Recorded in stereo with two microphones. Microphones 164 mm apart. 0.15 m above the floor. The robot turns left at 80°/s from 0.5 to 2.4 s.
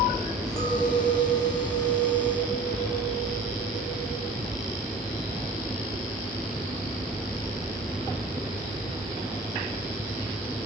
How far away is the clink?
About 2.5 m.